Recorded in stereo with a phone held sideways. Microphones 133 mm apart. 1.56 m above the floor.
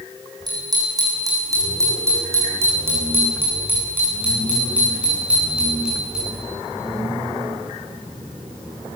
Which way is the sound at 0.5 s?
30° right (ahead or behind).